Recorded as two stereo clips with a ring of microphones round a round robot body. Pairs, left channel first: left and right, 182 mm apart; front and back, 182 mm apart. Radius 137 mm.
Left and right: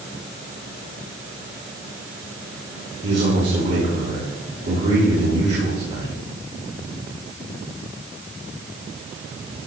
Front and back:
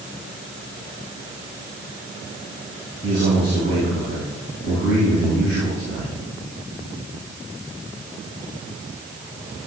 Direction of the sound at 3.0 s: 125° right.